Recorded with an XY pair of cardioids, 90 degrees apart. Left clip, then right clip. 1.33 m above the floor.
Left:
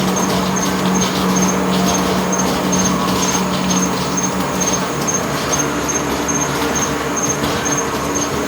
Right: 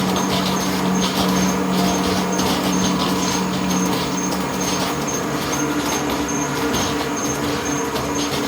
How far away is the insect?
About 1.2 m.